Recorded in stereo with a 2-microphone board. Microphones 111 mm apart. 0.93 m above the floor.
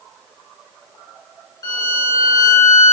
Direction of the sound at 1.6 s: 35° left (ahead or behind).